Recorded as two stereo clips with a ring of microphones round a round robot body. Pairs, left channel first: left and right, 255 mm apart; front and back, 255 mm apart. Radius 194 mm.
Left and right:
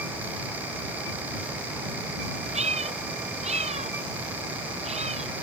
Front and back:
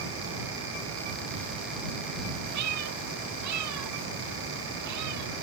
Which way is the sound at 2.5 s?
155° right.